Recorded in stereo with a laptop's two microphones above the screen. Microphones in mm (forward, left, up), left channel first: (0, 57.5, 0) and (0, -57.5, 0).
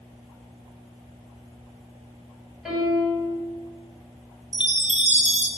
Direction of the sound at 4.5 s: 70° right (ahead or behind).